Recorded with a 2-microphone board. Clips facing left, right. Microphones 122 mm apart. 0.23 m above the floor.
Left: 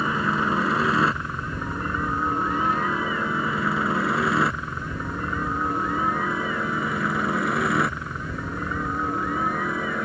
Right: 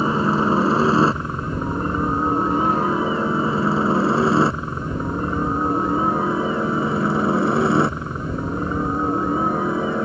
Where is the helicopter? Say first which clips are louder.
Right 6 dB; 30° right (ahead or behind).